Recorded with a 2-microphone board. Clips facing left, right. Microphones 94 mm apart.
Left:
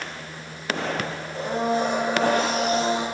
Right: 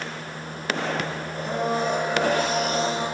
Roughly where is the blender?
Left.